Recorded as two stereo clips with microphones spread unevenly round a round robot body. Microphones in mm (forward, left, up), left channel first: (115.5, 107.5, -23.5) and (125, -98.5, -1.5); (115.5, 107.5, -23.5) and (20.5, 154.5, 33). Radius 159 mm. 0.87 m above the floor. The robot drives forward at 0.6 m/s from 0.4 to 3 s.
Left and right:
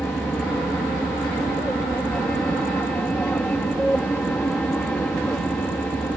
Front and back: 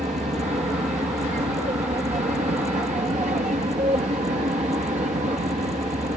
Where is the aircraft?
175° left.